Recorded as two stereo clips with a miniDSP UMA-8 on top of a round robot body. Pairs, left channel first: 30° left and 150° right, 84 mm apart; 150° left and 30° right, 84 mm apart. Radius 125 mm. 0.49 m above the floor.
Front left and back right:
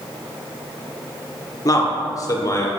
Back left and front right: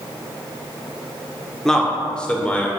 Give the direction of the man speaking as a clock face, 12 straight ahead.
10 o'clock.